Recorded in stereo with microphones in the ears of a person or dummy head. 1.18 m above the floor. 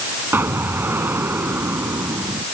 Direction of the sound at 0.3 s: 10° right (ahead or behind).